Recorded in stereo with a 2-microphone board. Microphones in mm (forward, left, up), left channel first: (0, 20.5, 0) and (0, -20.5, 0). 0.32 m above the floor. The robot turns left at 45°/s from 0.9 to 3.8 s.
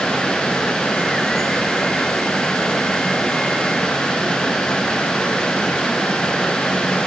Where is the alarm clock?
No alarm clock in this recording.